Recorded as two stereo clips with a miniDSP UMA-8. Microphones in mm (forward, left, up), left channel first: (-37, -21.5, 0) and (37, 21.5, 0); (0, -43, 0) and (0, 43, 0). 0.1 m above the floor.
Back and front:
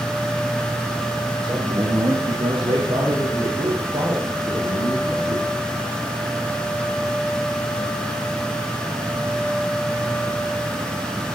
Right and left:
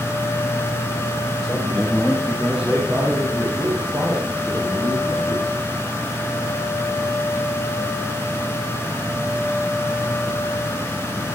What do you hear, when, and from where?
1.4 s a man speaking: 5° right, 5 m; by 5.5 s 45° left, 8.5 m